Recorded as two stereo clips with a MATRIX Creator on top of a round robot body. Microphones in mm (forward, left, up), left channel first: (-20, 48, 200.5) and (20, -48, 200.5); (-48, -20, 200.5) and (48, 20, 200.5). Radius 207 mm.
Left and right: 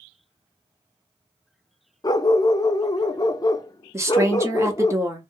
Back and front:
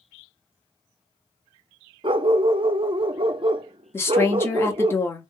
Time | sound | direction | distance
2.0 | a dog barking | 60° left | 0.6 m
3.9 | a woman speaking | 105° right | 1.5 m